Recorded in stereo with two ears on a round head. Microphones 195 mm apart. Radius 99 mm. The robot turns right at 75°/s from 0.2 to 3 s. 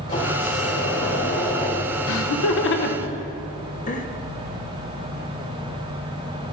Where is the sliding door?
35° left, 2.5 m; by 3.1 s 115° right, 2.5 m.